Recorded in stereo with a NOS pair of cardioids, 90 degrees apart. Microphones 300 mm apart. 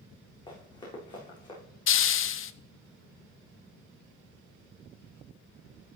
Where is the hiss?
45° left, 0.7 m.